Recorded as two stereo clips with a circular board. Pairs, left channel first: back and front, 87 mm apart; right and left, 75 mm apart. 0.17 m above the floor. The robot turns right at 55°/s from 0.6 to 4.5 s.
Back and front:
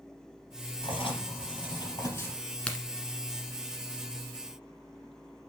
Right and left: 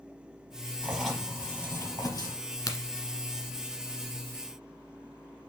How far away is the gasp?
I don't hear a gasp.